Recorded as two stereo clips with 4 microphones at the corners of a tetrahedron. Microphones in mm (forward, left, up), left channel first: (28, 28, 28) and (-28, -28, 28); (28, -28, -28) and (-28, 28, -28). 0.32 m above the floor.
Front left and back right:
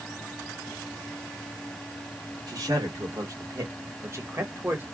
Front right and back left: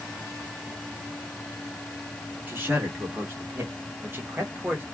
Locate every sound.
2.5 s a man speaking: 170° right, 2 m; by 4.8 s 175° left, 1.3 m